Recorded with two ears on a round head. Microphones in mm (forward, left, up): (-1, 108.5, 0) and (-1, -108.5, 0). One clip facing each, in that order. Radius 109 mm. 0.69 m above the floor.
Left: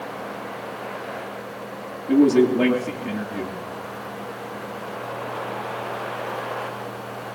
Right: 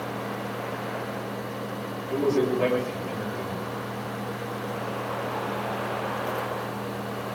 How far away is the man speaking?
About 10 m.